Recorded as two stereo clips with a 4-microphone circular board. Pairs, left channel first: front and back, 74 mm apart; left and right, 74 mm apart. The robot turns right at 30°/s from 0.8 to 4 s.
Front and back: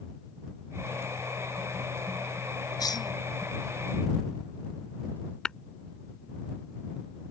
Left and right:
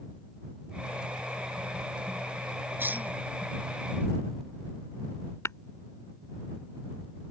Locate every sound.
2.8 s a cough: 25° right; by 3.1 s 15° right
5.5 s tapping: 75° left